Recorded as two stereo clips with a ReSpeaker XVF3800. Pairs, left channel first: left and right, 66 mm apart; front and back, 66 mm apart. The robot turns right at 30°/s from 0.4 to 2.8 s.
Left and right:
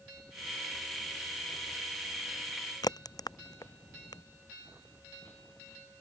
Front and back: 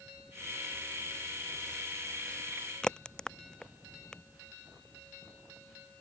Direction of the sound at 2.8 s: 75° left.